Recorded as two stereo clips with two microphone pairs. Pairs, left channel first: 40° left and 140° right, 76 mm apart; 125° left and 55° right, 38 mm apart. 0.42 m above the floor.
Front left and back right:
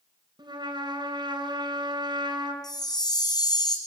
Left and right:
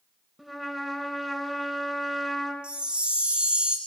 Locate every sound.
0.4 s a trumpet: 145° right, 4.5 m
2.6 s a chime: 5° left, 3 m